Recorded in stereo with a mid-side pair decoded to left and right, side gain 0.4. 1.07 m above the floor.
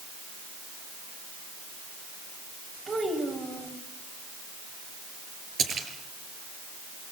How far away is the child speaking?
About 5 m.